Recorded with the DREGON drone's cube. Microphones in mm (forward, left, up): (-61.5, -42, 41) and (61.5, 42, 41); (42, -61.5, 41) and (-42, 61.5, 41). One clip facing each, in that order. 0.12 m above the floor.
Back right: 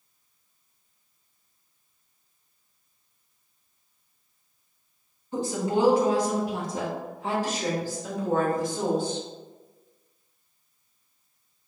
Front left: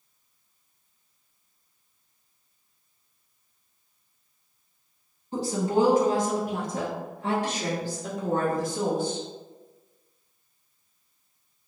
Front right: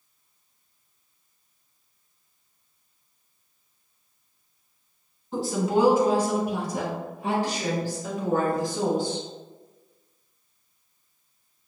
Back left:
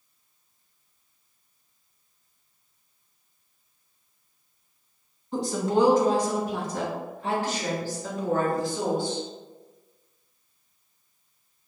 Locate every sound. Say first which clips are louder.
5.3 s a woman speaking: front left 1 dB, even; 30° left, 1.5 m; by 9.2 s 15° left, 4 m